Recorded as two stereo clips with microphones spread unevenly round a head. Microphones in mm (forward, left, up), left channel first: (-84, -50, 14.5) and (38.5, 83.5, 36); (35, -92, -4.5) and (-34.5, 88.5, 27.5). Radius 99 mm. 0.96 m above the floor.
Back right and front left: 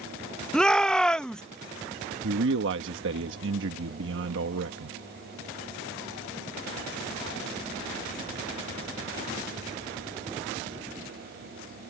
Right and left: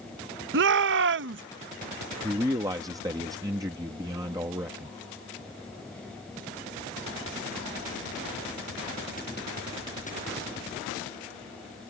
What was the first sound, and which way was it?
A shout, 145° left.